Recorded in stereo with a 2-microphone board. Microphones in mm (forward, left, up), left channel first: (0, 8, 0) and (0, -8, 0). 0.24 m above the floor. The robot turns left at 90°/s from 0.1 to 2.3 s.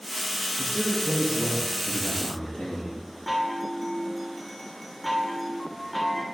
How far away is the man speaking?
About 4.5 m.